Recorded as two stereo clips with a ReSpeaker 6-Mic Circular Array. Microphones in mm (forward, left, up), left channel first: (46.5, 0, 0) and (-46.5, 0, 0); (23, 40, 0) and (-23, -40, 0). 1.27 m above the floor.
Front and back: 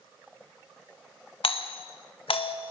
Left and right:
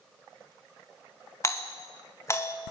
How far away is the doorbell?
About 1.9 m.